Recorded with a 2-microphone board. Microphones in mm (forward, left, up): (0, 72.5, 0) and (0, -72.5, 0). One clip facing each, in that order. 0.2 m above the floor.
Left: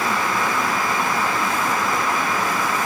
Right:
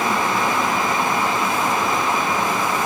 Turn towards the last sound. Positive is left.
No sound to turn to.